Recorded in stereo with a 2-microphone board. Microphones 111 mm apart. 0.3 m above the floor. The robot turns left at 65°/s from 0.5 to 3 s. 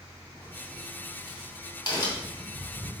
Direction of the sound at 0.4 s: 20° left (ahead or behind).